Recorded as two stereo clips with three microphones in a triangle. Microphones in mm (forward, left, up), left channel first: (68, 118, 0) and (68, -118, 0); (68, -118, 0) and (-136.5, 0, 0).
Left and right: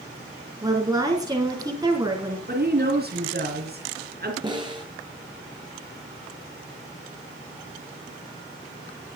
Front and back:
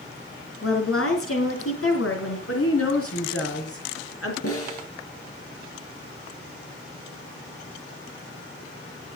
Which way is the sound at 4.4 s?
20° right.